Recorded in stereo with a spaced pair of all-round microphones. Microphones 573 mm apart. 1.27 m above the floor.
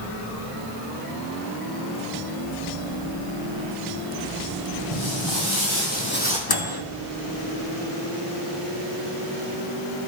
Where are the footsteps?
55° left (ahead or behind), 2 m; by 6.4 s 10° left (ahead or behind), 2 m.